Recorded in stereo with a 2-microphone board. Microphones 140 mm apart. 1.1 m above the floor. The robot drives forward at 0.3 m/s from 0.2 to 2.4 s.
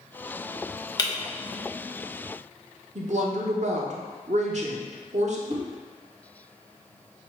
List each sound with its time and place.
1.0 s breaking glass: 30° left (ahead or behind), 0.6 m
3.0 s a woman speaking: 55° right (ahead or behind), 0.8 m
5.5 s a whoosh: 30° right (ahead or behind), 0.8 m